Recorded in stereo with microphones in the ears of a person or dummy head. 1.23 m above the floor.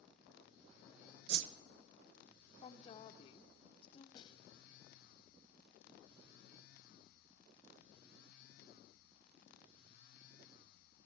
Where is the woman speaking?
30° left (ahead or behind), 0.7 m.